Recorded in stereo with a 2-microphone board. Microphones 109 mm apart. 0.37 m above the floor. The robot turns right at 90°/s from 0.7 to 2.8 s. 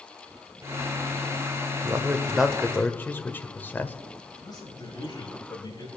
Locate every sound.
1.8 s a man speaking: 25° right (ahead or behind), 1.0 m; by 4.0 s 15° left (ahead or behind), 1.0 m
4.4 s a man speaking: 40° left (ahead or behind), 5 m